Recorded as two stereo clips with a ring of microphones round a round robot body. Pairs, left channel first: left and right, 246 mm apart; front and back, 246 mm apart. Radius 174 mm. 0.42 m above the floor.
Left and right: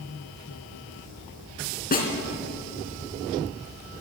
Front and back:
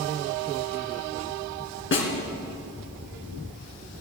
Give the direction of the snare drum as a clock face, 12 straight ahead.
11 o'clock.